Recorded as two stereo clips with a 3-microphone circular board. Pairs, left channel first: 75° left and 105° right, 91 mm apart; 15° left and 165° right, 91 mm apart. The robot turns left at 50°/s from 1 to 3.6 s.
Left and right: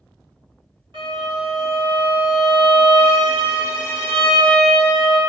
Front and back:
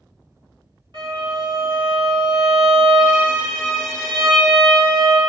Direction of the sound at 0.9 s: 130° right.